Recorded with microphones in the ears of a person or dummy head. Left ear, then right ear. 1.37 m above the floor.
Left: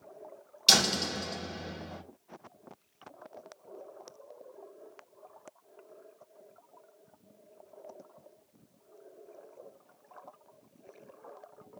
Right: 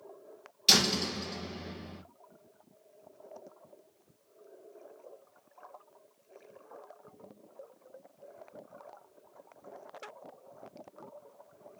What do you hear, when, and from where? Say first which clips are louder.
0.7 s a door slam: left 1 dB; 10° left (ahead or behind), 2.5 m